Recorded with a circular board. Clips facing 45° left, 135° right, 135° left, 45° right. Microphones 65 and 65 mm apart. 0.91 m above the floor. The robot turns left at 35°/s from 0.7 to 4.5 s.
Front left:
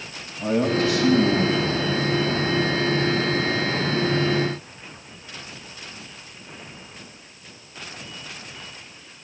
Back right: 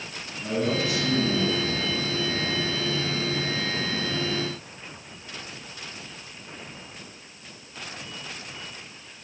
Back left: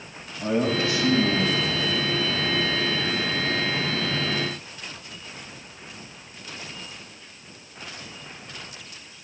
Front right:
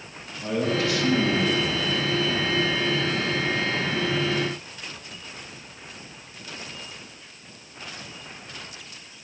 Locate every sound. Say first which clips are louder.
0.4 s a man speaking: front left 5 dB, back left 1 dB; 80° left, 4 m; by 2.5 s 15° left, 4 m